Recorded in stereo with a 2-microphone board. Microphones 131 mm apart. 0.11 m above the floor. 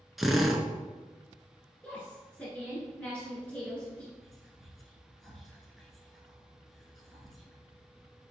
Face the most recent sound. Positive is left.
turn(degrees=0)  # may be behind; listen again after turning